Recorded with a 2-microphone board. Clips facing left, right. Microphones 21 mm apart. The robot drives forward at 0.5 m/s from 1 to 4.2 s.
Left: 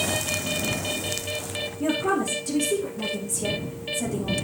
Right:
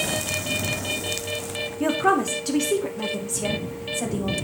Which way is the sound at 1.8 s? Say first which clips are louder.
Right 4 dB; 60° right (ahead or behind).